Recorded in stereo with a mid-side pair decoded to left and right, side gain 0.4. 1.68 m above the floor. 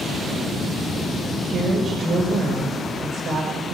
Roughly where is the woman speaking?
Ahead right.